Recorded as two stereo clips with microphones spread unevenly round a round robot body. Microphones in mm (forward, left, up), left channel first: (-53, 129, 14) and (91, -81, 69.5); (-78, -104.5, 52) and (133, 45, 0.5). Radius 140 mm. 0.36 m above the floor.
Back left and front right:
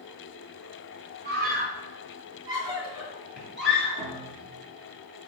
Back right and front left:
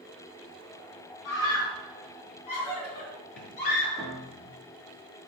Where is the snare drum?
No snare drum in this recording.